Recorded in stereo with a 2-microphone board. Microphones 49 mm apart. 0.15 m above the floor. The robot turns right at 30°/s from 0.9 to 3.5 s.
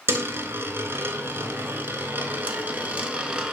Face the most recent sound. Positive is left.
turn(degrees=-15)  # may be behind; listen again after turning